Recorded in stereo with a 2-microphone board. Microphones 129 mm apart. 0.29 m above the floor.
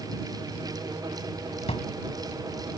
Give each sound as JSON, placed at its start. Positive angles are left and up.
{"t": 1.7, "sound": "a drawer", "side_deg": 55}